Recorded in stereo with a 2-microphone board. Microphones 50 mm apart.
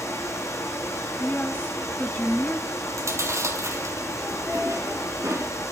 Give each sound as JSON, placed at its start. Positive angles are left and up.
{"t": 0.0, "sound": "running water", "side_deg": 80, "distance_m": 7.5}
{"t": 1.2, "sound": "a woman speaking", "side_deg": 30, "distance_m": 1.3}
{"t": 2.9, "sound": "chewing", "side_deg": -75, "distance_m": 4.0}